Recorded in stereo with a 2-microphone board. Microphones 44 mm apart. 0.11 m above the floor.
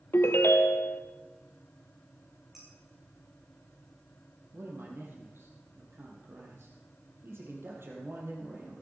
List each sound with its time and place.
0.1 s a ringtone: 65° left (ahead or behind), 1.2 m
2.5 s dishes clattering: 5° right (ahead or behind), 5 m
4.5 s a man speaking: 65° right (ahead or behind), 3.5 m